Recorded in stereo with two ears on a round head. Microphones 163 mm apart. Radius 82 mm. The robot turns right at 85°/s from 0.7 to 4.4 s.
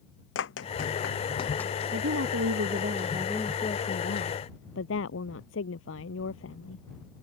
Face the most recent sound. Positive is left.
turn(degrees=90)